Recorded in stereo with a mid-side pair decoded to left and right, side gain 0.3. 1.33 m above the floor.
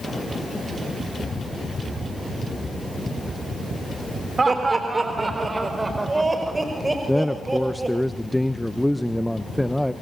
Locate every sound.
4.4 s laughter: 40° right, 3.5 m; by 8.0 s 25° right, 6 m
7.1 s a man speaking: 5° left, 1.0 m